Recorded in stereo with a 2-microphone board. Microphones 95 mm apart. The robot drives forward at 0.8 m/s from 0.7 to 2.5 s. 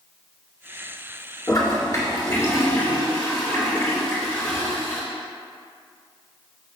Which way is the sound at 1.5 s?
35° left (ahead or behind).